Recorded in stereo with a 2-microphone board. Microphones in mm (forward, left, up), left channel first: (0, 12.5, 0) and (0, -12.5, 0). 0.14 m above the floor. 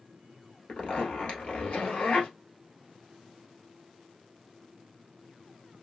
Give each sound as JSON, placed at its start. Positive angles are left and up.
{"t": 0.7, "sound": "a zipper", "side_deg": 60, "distance_m": 1.4}